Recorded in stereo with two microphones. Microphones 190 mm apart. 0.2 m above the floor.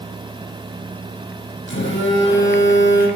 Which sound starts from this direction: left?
A phone buzzing, at 1.7 s.